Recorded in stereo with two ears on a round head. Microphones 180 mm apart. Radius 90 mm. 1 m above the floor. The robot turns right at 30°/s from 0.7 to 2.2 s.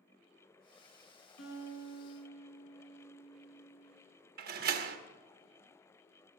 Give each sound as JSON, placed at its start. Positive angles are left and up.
{"t": 1.4, "sound": "a guitar", "side_deg": 85, "distance_m": 7.0}
{"t": 4.4, "sound": "a door slam", "side_deg": -50, "distance_m": 1.0}